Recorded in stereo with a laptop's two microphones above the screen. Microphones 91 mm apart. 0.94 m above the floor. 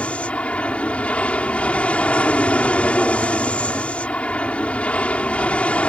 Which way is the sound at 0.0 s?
10° left (ahead or behind).